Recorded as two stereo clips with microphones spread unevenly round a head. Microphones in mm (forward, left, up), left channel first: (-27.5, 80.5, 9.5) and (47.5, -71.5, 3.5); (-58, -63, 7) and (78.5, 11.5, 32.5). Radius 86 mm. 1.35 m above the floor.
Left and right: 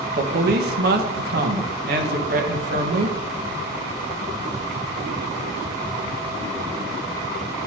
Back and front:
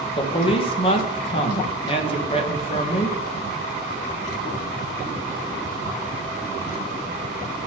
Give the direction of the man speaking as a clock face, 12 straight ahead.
3 o'clock.